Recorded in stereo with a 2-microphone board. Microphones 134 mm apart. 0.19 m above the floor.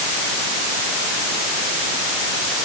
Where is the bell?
No bell in this recording.